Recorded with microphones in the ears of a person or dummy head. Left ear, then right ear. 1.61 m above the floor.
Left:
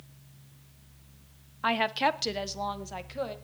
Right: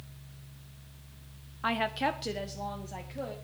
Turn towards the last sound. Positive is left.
turn(degrees=50)  # may be behind; listen again after turning